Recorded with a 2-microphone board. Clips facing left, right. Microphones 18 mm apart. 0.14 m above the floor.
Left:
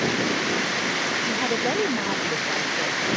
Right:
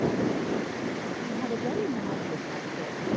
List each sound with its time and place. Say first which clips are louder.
0.0 s running water: left 4 dB; 70° left (ahead or behind)
1.3 s a woman speaking: left 7 dB; 65° left (ahead or behind)